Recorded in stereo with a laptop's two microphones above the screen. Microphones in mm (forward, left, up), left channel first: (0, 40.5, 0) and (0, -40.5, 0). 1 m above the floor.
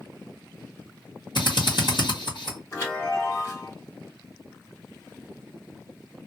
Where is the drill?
60° left (ahead or behind), 1.5 m.